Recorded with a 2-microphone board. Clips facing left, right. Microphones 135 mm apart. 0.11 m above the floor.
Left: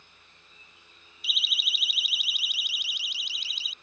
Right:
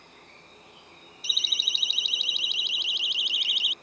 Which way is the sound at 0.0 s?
65° right (ahead or behind).